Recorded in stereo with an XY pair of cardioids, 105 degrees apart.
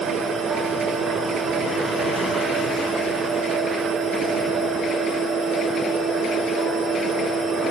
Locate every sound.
0.0 s a machine running: 60° right, 6 m